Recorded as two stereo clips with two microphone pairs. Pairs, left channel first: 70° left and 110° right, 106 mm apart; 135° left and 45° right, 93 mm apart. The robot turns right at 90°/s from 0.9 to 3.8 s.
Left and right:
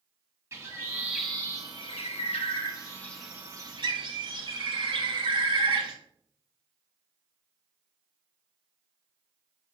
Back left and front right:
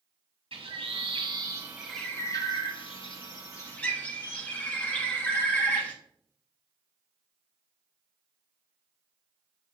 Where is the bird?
50° right, 0.7 m; by 5.9 s 150° right, 0.7 m.